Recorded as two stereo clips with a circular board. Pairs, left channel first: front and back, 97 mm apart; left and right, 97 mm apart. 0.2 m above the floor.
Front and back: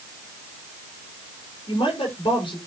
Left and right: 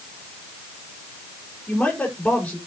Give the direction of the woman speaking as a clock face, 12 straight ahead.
12 o'clock.